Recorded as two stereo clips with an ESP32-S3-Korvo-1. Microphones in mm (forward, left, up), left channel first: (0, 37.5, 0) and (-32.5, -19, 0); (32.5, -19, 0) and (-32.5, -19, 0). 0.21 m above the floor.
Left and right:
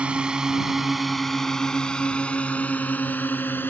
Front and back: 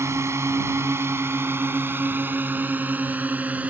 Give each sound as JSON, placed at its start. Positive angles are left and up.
{"t": 0.0, "sound": "a drone", "azimuth_deg": 175}